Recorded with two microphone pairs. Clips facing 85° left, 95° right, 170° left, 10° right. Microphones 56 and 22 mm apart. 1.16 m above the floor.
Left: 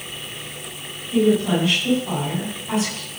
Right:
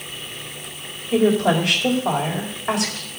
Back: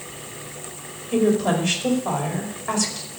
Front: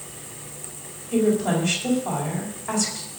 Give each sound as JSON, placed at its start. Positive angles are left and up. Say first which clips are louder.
{"t": 1.1, "sound": "a woman speaking", "louder": "right 1 dB, back 1 dB", "azimuth_deg": -120, "distance_m": 4.5}